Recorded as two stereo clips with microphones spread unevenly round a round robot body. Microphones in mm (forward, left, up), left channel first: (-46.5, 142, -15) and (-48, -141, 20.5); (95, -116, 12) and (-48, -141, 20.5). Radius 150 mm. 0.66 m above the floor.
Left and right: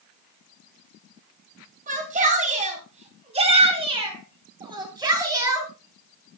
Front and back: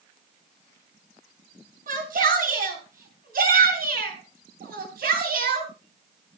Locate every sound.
1.9 s a shout: 155° right, 8 m; by 5.7 s 170° right, 8 m